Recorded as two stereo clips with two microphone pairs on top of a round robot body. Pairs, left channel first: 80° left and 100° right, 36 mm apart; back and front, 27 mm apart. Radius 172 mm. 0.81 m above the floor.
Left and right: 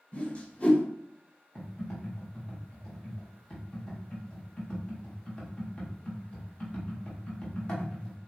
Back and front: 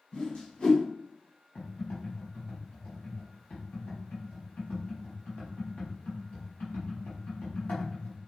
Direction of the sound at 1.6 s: 140° left.